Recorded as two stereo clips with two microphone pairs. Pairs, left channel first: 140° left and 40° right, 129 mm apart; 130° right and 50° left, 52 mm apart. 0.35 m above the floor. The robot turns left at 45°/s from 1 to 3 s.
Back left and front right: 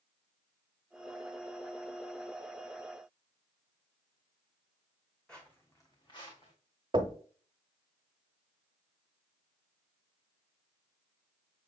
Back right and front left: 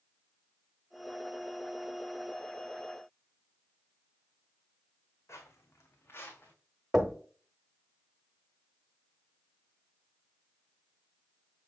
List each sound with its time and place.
5.3 s footsteps: 130° right, 1.2 m; by 6.5 s straight behind, 1.6 m
6.9 s knocking: 20° right, 0.8 m